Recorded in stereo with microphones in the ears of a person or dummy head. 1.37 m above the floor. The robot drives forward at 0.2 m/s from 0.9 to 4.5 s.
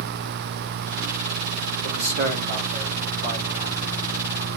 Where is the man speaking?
50° right (ahead or behind), 1.7 m; by 4.0 s 40° right (ahead or behind), 2 m.